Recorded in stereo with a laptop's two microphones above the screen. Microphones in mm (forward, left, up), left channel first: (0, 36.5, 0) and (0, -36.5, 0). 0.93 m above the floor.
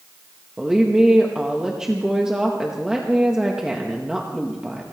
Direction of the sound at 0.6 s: 10° right (ahead or behind).